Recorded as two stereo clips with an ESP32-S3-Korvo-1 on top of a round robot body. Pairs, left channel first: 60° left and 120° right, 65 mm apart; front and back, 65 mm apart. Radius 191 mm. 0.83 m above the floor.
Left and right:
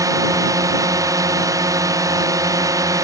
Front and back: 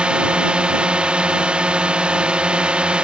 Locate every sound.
0.0 s a drone: 110° right